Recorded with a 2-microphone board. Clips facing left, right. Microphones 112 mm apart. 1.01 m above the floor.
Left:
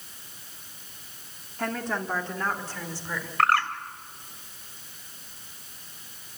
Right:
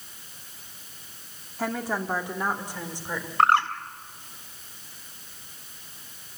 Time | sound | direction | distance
1.6 | a woman speaking | 5° right (ahead or behind) | 1.7 m
3.4 | a bird | 25° right (ahead or behind) | 1.6 m